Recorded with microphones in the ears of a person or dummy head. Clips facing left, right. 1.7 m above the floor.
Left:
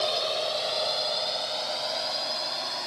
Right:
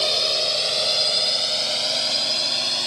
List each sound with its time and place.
0.0 s a drone: 30° right (ahead or behind); by 2.9 s 40° right (ahead or behind)